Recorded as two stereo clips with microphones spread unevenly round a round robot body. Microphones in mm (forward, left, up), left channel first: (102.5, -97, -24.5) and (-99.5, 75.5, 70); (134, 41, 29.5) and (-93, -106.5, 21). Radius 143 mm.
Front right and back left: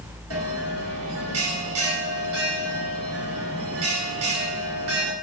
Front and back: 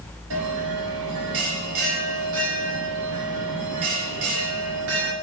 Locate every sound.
0.3 s a bell: 175° left, 2.5 m